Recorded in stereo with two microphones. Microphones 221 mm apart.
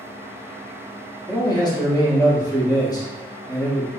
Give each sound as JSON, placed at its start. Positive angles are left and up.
{"t": 1.3, "sound": "a man speaking", "side_deg": 20, "distance_m": 0.7}